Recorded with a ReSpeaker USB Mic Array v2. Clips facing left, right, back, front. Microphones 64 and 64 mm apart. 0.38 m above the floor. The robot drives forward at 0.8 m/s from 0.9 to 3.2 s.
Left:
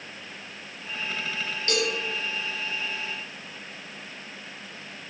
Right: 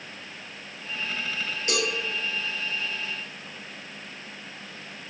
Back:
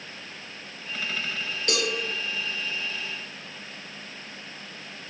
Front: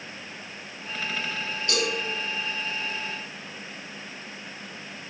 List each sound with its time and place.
1.7 s a cowbell: 165° right, 3.5 m